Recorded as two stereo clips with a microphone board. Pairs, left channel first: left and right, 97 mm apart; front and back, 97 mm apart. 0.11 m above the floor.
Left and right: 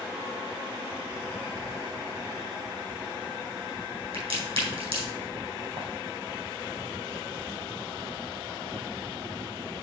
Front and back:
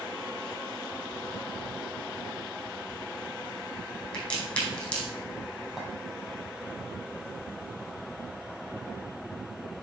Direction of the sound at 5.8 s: 90° right.